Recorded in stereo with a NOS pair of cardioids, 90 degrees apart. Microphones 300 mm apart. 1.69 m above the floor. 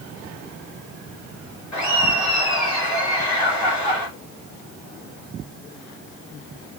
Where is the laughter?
55° left, 3.5 m.